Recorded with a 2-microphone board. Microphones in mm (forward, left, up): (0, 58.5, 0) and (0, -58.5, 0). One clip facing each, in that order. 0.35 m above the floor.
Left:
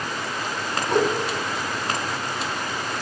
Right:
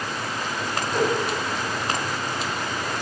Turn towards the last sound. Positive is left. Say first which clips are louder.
# left 3 dB
turn(degrees=70)  # may be behind; listen again after turning